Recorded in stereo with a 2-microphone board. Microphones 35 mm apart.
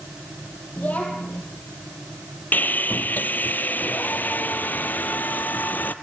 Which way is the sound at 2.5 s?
55° left (ahead or behind).